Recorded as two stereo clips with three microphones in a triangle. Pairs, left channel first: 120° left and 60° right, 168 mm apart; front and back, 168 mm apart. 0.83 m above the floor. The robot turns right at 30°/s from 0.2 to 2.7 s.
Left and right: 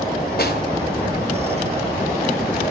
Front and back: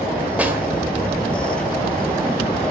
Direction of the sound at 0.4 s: 100° left.